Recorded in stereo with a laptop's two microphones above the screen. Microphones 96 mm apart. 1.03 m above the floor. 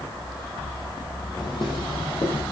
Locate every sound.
1.4 s footsteps: 45° left (ahead or behind), 2.0 m; by 2.4 s 65° left (ahead or behind), 3 m